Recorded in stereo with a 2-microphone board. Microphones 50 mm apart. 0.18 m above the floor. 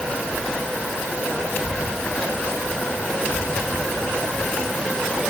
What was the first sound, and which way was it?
Only background noise.